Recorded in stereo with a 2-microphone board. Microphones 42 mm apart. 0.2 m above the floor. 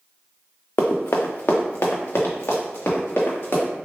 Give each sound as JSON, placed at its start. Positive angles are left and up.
{"t": 0.8, "sound": "running footsteps", "side_deg": 65, "distance_m": 0.7}